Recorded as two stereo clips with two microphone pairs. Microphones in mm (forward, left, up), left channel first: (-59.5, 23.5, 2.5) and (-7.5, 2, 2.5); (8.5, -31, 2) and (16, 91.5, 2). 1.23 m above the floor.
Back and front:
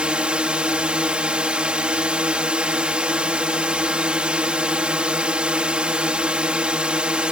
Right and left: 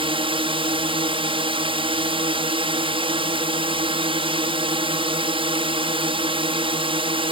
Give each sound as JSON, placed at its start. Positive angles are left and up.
{"t": 0.0, "sound": "a drone", "azimuth_deg": 50}